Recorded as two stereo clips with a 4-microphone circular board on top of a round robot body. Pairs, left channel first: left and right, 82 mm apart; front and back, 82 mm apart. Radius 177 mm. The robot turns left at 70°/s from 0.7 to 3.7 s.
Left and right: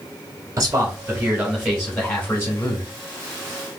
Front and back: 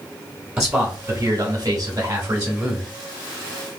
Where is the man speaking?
115° right, 1.3 m; by 2.9 s 90° left, 1.3 m.